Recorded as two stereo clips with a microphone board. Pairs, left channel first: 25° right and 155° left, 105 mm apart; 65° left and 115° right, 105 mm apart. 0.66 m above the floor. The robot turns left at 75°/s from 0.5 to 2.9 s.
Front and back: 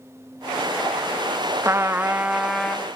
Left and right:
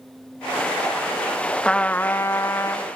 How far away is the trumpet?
About 1.0 m.